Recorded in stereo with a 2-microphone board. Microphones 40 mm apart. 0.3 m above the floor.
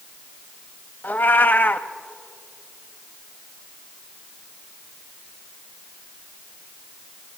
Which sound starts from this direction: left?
A cat meowing, at 1.0 s.